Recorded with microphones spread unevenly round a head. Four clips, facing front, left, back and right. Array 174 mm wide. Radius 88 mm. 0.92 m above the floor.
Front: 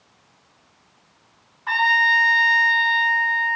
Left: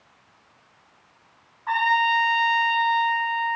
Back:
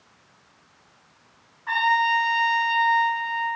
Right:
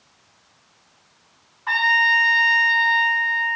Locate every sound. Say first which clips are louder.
1.7 s a trumpet: even, front 1 dB; 55° right, 5 m